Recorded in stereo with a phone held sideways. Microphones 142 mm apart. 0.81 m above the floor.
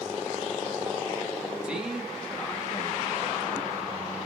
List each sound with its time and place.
1.6 s a man speaking: 5° right (ahead or behind), 1.4 m; by 4.3 s 50° left (ahead or behind), 1.4 m